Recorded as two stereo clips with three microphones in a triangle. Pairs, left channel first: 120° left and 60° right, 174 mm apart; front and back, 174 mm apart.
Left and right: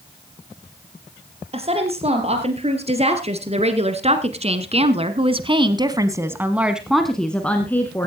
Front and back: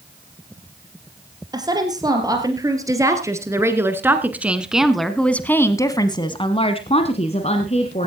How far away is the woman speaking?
About 3.5 m.